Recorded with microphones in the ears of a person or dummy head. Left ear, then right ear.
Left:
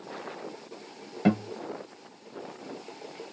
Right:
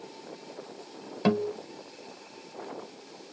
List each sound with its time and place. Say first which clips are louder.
1.2 s a guitar: right 1 dB; 30° right (ahead or behind), 1.1 m